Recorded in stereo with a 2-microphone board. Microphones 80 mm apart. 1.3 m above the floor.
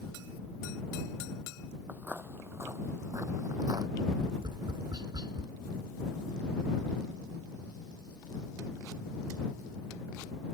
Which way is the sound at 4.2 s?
60° right (ahead or behind).